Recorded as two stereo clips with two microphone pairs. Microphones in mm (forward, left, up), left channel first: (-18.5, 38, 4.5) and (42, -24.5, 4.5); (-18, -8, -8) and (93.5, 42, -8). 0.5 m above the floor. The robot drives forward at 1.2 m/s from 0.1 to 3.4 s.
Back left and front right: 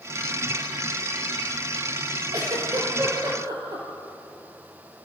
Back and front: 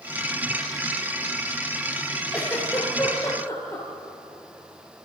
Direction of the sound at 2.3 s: 75° right.